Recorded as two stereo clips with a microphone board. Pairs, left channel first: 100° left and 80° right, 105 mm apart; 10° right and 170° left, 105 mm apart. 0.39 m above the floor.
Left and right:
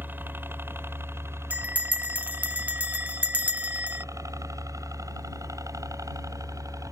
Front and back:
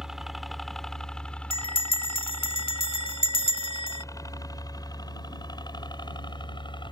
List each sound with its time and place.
0.0 s a helicopter: 115° right; by 6.9 s 30° right
1.5 s a bell: 5° right